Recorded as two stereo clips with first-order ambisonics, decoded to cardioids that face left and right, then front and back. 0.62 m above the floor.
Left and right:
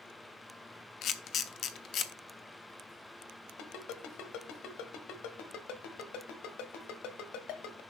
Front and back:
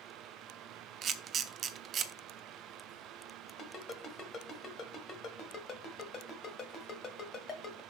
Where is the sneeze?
I don't hear a sneeze.